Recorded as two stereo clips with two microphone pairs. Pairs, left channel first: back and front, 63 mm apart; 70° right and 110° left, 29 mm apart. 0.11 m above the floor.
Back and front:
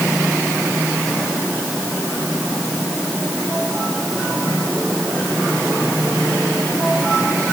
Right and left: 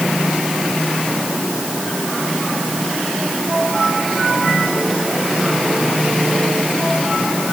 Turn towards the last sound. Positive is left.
No sound to turn to.